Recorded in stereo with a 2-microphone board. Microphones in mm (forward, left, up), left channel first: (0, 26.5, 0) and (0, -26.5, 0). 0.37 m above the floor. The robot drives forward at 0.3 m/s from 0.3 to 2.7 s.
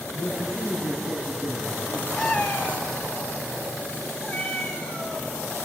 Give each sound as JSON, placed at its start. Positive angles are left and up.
{"t": 0.1, "sound": "a man speaking", "side_deg": 65, "distance_m": 4.0}
{"t": 2.2, "sound": "a cat meowing", "side_deg": 30, "distance_m": 1.2}